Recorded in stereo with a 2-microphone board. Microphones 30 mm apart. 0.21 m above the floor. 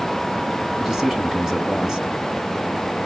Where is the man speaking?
20° right (ahead or behind), 1.5 m.